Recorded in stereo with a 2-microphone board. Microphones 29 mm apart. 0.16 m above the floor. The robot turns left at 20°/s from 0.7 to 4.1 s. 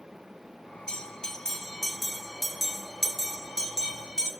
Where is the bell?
30° left (ahead or behind), 1.0 m; by 4.3 s 30° right (ahead or behind), 1.0 m.